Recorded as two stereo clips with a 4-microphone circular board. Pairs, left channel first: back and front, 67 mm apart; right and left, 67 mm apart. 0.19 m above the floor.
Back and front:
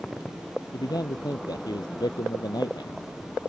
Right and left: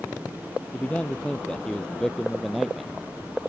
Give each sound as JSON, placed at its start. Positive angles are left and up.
{"t": 0.7, "sound": "a man speaking", "azimuth_deg": -160}